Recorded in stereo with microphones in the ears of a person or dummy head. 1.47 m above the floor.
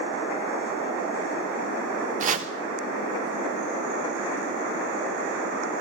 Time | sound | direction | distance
2.2 | chopping | 45° right (ahead or behind) | 0.6 m